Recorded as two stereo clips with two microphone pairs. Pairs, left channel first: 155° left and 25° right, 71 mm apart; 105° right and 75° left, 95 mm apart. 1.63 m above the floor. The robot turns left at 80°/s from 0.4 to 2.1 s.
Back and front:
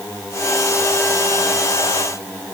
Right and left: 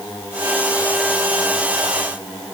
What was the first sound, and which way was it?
Only background noise.